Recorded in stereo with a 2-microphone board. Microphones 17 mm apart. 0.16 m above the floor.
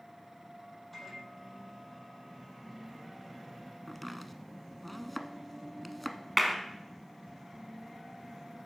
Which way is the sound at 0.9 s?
10° left (ahead or behind).